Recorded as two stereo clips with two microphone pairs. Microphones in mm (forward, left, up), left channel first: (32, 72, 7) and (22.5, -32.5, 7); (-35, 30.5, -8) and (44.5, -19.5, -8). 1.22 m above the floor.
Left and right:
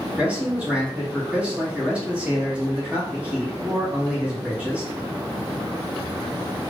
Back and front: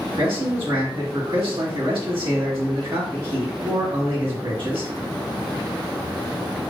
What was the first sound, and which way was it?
A man speaking, 15° right.